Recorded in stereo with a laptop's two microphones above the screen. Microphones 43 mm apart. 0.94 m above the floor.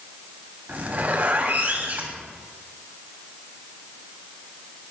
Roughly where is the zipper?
Right.